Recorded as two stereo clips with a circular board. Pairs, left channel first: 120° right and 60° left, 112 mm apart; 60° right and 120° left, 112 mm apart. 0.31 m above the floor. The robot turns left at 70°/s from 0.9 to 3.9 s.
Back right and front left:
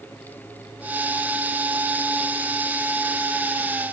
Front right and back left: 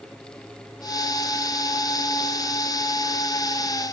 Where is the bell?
I don't hear a bell.